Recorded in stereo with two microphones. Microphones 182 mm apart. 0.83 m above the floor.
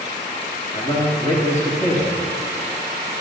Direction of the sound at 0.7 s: 40° left (ahead or behind).